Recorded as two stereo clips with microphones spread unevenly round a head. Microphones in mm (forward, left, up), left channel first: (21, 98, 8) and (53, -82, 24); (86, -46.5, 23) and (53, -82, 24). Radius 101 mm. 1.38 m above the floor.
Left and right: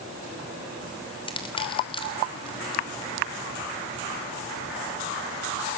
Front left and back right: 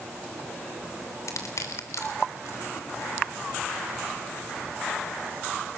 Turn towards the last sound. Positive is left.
turn(degrees=35)